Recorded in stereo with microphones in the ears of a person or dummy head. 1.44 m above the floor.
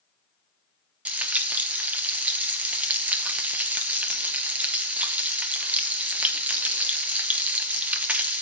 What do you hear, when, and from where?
1.1 s frying: 10° right (ahead or behind), 1.1 m